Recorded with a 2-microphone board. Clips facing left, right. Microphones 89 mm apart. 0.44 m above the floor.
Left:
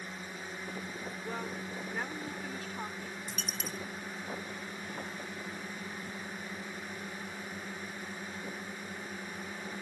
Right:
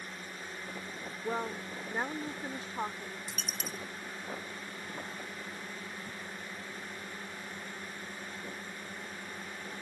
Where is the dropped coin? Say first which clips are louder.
Left 1 dB; 5° right (ahead or behind).